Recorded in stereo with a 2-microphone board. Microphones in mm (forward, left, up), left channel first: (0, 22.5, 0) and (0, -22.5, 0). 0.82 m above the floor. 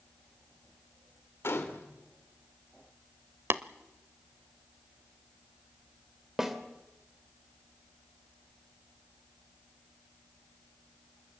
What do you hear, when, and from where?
1.4 s a gunshot: 60° left (ahead or behind), 2.5 m
3.5 s tapping: 55° right (ahead or behind), 0.8 m
6.4 s a snare drum: 10° right (ahead or behind), 2.5 m